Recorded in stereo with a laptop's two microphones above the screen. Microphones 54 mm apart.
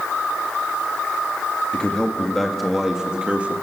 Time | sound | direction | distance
1.7 | a man speaking | 20° left (ahead or behind) | 1.8 m